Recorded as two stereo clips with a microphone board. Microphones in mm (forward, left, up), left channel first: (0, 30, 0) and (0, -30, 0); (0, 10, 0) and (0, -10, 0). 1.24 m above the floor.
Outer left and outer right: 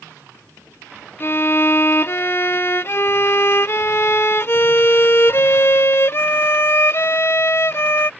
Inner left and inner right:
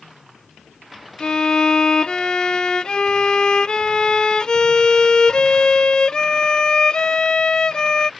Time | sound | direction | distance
1.2 | a violin | 40° left (ahead or behind) | ?